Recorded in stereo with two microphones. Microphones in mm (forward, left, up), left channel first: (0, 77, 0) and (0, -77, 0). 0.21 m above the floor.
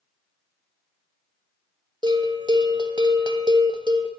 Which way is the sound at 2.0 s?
30° right (ahead or behind).